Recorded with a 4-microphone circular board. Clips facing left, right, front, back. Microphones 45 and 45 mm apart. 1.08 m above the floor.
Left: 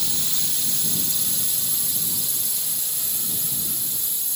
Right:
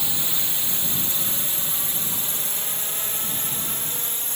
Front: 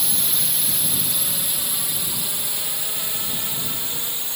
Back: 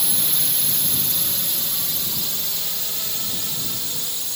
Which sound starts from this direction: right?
A drone, at 0.0 s.